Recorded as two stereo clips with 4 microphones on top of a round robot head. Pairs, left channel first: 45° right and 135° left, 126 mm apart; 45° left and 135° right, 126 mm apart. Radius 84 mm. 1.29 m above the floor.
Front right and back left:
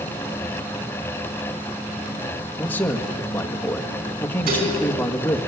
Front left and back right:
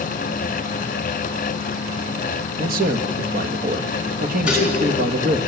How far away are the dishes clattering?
About 5.5 m.